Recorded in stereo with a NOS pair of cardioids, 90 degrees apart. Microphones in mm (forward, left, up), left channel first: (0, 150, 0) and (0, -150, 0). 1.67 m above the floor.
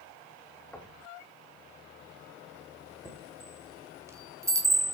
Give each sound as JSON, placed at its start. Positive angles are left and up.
{"t": 0.7, "sound": "knocking", "azimuth_deg": 5, "distance_m": 2.5}
{"t": 3.0, "sound": "a chime", "azimuth_deg": -10, "distance_m": 2.5}